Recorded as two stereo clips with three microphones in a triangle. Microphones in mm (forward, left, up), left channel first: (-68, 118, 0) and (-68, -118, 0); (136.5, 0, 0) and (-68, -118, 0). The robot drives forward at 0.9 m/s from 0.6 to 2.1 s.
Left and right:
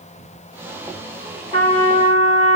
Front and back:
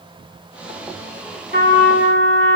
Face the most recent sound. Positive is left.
turn(degrees=-115)